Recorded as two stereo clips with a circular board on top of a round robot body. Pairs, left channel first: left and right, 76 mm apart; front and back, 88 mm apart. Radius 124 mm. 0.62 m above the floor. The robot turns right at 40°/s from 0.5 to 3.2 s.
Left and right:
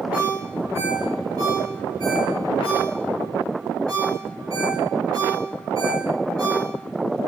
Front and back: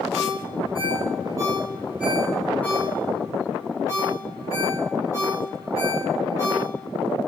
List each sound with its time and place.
0.1 s a ringtone: 160° right, 4.5 m; by 6.7 s 50° right, 4.5 m